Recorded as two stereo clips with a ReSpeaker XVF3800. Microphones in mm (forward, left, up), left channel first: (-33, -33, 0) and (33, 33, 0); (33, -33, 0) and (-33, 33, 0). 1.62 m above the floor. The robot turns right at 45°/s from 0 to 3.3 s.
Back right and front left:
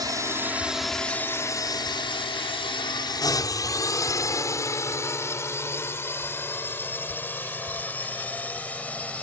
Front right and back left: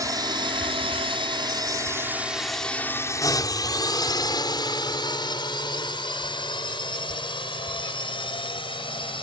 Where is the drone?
85° left; by 9.2 s 60° right.